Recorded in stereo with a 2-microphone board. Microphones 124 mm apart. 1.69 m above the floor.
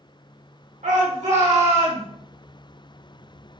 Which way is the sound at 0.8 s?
80° right.